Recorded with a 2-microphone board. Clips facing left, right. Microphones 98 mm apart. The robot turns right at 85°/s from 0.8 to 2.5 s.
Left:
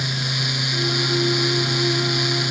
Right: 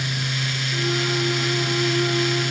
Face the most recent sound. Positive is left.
No sound to turn to.